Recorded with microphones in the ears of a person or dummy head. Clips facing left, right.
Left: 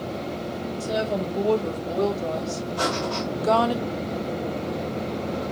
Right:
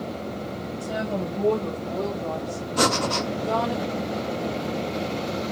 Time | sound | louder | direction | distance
0.8 | a woman speaking | left 3 dB | 40° left (ahead or behind) | 3.5 m
2.8 | breathing | right 5 dB | 60° right (ahead or behind) | 0.5 m